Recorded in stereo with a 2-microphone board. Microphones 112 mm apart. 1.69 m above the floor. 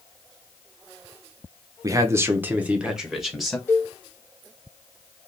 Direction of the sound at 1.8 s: 30° right (ahead or behind).